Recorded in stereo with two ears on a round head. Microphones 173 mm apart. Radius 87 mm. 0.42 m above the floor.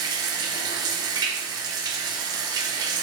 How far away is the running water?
About 1.0 m.